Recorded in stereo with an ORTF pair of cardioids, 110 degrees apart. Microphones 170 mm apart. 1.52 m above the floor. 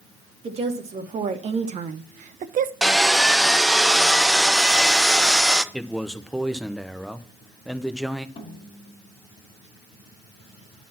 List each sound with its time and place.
0.4 s a woman speaking: 40° right, 2 m; by 2.7 s 55° right, 0.7 m
2.8 s sawing: 5° right, 0.6 m
5.7 s a man speaking: straight ahead, 0.9 m
8.4 s a snare drum: 35° left, 2.5 m